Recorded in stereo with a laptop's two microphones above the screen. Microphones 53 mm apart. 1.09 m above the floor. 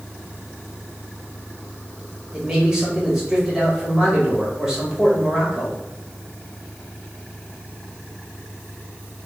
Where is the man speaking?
15° right (ahead or behind), 1.5 m.